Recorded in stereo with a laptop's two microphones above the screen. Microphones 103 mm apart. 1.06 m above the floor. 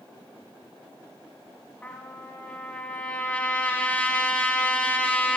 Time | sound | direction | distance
1.8 | a trumpet | 15° left (ahead or behind) | 1.5 m